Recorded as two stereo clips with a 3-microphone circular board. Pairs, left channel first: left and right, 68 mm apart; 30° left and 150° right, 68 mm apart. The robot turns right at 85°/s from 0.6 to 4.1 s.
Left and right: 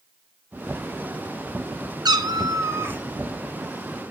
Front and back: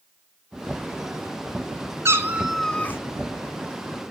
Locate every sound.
2.0 s a cat meowing: 105° right, 0.8 m; by 3.0 s 20° right, 0.8 m